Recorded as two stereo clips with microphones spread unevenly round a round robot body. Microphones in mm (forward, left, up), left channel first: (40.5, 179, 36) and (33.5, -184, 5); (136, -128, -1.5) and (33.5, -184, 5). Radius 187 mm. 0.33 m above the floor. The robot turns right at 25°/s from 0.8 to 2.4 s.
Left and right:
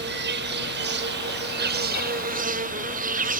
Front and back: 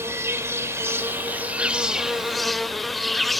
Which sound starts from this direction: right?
An insect, at 0.0 s.